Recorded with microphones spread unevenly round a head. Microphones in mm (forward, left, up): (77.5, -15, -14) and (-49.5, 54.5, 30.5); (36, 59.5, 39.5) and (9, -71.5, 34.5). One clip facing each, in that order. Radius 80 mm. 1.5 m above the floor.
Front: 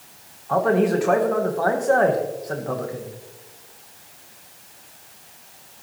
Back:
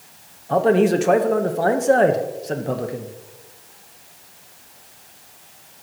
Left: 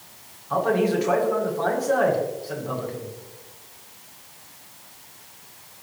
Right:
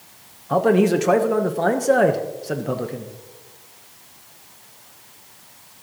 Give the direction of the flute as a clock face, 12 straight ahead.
I don't hear a flute.